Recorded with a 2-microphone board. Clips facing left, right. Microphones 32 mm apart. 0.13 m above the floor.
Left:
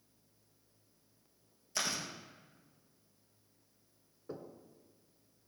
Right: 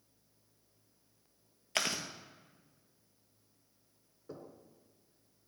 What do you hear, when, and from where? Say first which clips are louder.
1.8 s chewing: right 3 dB; 65° right (ahead or behind), 1.0 m
4.3 s knocking: left 2 dB; 15° left (ahead or behind), 1.3 m